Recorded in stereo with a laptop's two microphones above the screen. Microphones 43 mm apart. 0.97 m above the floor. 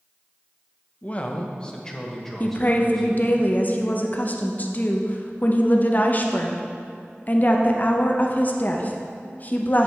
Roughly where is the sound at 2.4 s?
Left.